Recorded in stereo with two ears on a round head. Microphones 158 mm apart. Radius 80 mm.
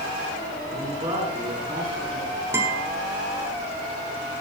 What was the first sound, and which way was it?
A man speaking, 25° right (ahead or behind).